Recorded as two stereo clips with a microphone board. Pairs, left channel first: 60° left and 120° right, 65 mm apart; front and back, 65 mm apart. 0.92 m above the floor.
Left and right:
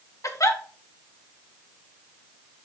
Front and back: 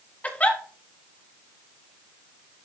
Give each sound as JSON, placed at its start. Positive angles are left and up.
{"t": 0.2, "sound": "a giggle", "azimuth_deg": 60, "distance_m": 1.2}